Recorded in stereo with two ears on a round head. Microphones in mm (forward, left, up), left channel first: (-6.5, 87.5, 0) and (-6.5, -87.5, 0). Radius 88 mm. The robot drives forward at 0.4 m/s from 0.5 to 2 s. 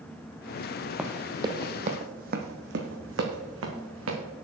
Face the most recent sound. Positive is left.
turn(degrees=-80)